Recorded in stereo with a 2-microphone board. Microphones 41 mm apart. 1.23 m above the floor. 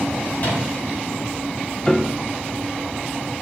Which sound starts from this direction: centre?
A piano, at 1.9 s.